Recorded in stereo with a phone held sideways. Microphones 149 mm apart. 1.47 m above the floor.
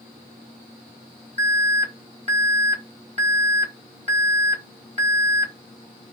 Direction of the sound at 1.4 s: 45° right (ahead or behind).